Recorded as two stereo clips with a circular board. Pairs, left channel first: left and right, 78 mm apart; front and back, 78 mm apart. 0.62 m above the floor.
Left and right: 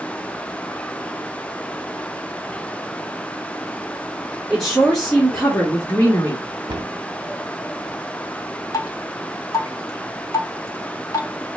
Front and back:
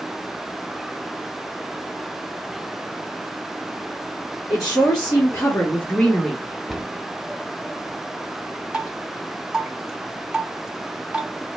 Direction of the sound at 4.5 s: Straight ahead.